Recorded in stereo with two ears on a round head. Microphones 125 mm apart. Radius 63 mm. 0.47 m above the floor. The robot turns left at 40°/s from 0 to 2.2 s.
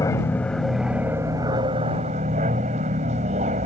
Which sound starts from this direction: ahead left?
An aircraft, at 0.0 s.